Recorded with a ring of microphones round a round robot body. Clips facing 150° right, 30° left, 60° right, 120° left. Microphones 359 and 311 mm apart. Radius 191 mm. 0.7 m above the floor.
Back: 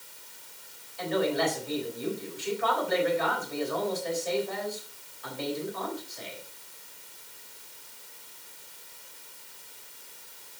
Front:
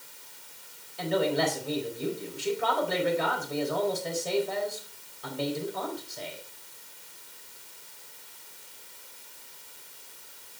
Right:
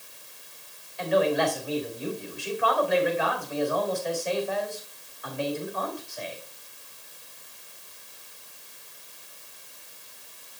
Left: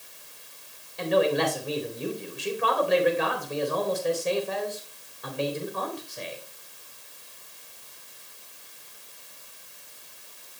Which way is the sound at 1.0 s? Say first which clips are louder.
Even, left 1 dB; 80° left.